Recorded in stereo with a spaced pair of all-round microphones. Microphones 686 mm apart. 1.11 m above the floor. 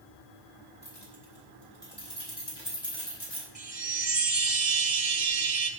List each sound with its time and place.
0.8 s keys jangling: 55° left (ahead or behind), 5 m; by 3.5 s 75° left (ahead or behind), 4.5 m
3.5 s a chime: 55° right (ahead or behind), 1.5 m